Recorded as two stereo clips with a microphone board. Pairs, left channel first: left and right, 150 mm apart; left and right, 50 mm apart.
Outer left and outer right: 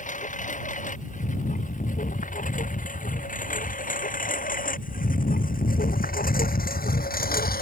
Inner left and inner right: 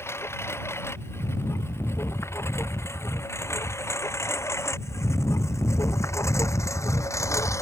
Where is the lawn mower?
60° left (ahead or behind); by 7.6 s 85° left.